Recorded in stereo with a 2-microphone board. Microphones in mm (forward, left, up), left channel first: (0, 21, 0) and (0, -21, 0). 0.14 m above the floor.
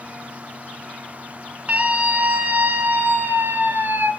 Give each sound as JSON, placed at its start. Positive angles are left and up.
{"t": 1.7, "sound": "a scream", "side_deg": -30, "distance_m": 2.0}